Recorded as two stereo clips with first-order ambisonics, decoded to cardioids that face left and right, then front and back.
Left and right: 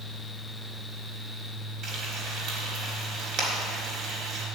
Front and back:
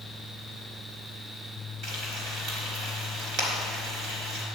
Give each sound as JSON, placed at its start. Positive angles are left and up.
{"t": 1.8, "sound": "frying", "azimuth_deg": -140, "distance_m": 3.0}